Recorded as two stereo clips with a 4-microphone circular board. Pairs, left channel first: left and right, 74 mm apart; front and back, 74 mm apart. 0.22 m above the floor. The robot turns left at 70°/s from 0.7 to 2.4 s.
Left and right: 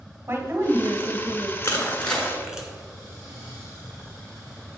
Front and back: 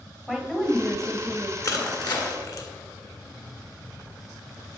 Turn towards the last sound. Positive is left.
turn(degrees=-10)